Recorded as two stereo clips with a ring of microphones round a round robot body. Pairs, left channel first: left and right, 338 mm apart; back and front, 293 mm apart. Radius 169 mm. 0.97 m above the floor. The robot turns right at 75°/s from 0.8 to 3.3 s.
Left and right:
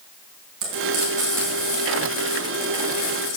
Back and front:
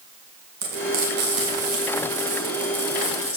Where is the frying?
50° right, 4 m; by 3.4 s 135° left, 4 m.